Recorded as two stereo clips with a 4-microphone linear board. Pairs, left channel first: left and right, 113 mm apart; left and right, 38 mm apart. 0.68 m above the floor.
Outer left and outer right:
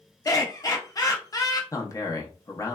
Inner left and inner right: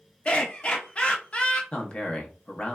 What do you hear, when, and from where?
0.2 s laughter: 30° left (ahead or behind), 0.6 m
1.7 s a man speaking: 30° left (ahead or behind), 0.6 m